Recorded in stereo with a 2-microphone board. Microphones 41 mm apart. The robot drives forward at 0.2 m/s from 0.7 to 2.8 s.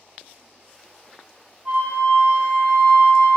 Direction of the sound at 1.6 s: 30° right (ahead or behind).